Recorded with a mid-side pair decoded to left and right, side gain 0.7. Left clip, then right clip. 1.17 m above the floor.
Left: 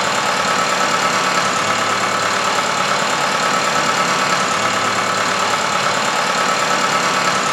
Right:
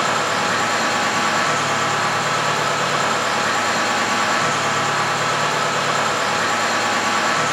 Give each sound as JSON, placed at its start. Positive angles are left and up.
{"t": 0.0, "sound": "a machine running", "azimuth_deg": 45, "distance_m": 1.2}